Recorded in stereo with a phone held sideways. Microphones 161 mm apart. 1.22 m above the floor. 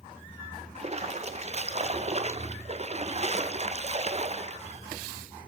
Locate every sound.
0.8 s a splash: 45° right (ahead or behind), 0.7 m